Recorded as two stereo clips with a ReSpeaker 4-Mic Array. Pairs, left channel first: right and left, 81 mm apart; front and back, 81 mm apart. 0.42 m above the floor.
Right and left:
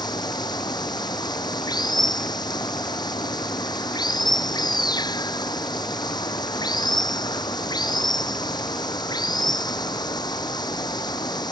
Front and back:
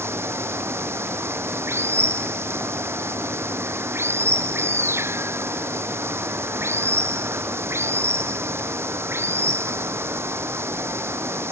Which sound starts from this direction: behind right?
Running water, at 0.0 s.